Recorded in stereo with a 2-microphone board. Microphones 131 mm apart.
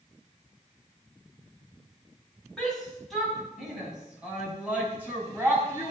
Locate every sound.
2.6 s a shout: 5° left (ahead or behind), 4 m; by 5.9 s 20° right (ahead or behind), 4.5 m